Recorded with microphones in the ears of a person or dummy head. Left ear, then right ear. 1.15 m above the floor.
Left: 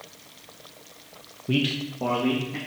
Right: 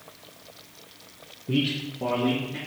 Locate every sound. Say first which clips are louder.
1.5 s a man speaking: left 1 dB; 30° left (ahead or behind), 0.6 m; by 2.6 s 20° left (ahead or behind), 2.0 m